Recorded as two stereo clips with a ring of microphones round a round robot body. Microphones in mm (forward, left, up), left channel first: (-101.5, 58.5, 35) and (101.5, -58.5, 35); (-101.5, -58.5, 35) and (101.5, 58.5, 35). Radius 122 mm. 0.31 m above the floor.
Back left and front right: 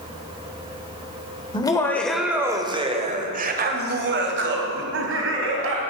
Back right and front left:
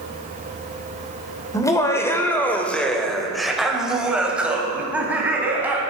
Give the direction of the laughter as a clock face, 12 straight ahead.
6 o'clock.